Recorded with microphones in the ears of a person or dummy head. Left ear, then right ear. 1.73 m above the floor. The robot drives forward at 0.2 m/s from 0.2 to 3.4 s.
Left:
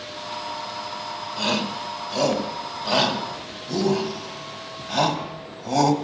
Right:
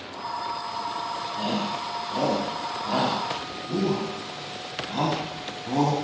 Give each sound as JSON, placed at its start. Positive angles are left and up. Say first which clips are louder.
{"t": 1.4, "sound": "a shout", "louder": "left 6 dB", "side_deg": 70, "distance_m": 5.0}